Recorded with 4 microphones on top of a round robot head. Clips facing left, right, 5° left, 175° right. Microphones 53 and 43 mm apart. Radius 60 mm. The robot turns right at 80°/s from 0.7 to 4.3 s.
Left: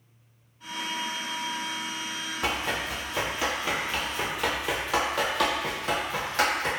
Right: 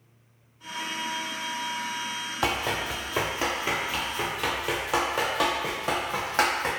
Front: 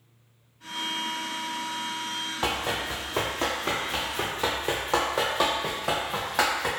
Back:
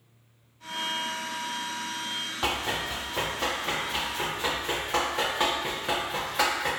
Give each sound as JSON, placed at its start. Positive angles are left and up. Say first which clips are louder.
{"t": 2.4, "sound": "running footsteps", "louder": "right 2 dB, front 1 dB", "azimuth_deg": -80, "distance_m": 1.1}